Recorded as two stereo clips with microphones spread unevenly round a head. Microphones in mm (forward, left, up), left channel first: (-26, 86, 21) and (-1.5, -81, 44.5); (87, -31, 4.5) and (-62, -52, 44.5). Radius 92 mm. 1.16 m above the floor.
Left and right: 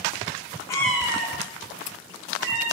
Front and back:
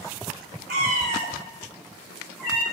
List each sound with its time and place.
0.7 s a cat meowing: 170° left, 0.7 m; by 2.6 s 80° right, 2.0 m